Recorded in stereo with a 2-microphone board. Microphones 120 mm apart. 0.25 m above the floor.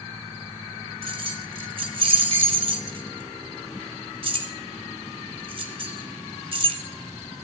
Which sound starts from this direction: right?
Keys jangling, at 1.0 s.